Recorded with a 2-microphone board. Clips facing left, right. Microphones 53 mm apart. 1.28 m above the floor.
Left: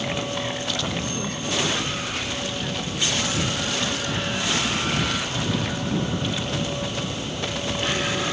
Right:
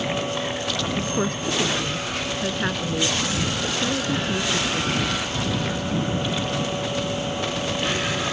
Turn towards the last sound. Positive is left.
turn(degrees=-60)  # may be behind; listen again after turning